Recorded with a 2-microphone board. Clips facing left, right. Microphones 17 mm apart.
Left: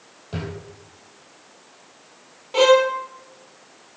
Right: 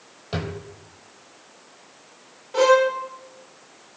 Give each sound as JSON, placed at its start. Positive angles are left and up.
{"t": 0.3, "sound": "a drawer", "side_deg": -25, "distance_m": 3.0}
{"t": 2.5, "sound": "a violin", "side_deg": 30, "distance_m": 1.0}